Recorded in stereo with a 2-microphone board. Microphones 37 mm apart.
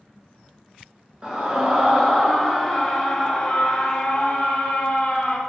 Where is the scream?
25° right (ahead or behind), 1.5 m; by 5.4 s 30° left (ahead or behind), 2.5 m.